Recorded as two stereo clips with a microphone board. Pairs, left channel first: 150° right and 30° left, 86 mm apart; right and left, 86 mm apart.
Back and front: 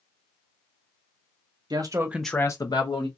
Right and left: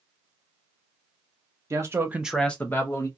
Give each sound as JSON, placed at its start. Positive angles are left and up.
{"t": 1.7, "sound": "a man speaking", "azimuth_deg": 45, "distance_m": 0.9}